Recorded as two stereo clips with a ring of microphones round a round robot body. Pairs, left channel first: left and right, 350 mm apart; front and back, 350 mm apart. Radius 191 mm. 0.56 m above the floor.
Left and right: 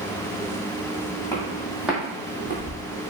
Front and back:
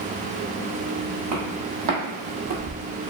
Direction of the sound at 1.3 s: 170° left.